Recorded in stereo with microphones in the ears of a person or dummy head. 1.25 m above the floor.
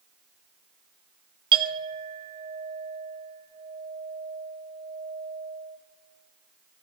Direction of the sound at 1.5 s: 25° right (ahead or behind).